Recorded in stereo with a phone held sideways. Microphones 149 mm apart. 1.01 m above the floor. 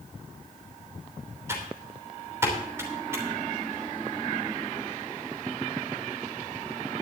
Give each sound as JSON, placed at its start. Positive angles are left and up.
{"t": 1.5, "sound": "typing on a keyboard", "side_deg": -15, "distance_m": 3.0}